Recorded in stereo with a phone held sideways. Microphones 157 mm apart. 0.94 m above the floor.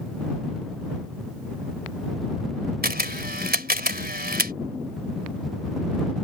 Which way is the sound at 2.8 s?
85° right.